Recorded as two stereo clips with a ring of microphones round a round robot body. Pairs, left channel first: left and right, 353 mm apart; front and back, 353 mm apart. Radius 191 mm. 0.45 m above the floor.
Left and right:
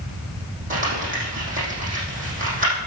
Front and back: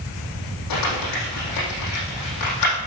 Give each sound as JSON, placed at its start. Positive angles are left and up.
{"t": 0.7, "sound": "crumpling", "azimuth_deg": -25, "distance_m": 6.5}